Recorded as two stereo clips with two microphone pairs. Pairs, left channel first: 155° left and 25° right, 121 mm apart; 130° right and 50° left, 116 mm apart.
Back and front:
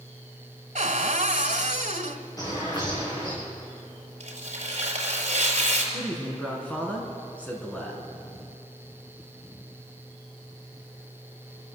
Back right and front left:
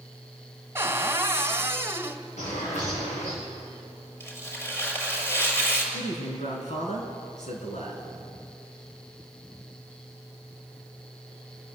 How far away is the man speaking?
About 5 m.